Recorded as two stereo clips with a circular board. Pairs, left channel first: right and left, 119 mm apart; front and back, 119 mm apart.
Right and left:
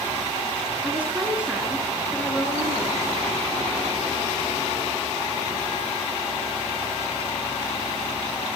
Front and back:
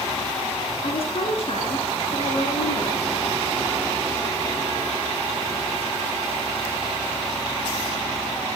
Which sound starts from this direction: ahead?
A woman speaking, at 0.8 s.